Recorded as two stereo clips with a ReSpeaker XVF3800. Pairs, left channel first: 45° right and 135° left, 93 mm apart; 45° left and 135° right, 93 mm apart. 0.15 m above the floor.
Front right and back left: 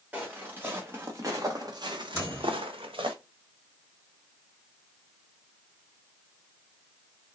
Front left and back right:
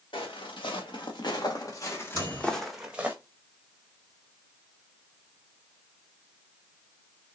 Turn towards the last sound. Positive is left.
turn(degrees=80)